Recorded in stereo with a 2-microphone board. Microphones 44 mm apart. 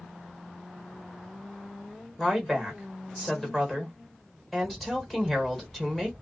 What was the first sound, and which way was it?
A woman speaking, 5° left (ahead or behind).